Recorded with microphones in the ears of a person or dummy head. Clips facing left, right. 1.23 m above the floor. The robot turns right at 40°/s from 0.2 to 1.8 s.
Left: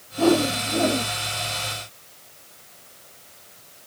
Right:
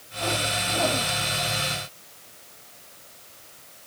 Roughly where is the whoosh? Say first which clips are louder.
Left 11 dB; behind left.